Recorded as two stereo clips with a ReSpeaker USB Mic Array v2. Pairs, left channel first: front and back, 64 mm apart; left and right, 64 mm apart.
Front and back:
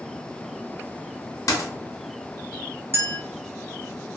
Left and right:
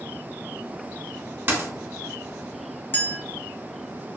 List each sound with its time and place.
1.5 s a dropped coin: 35° right, 0.6 m
2.9 s a clink: 140° left, 0.8 m